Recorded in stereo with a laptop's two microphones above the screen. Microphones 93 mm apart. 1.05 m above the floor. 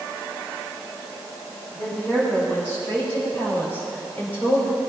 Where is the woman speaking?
20° left (ahead or behind), 6 m.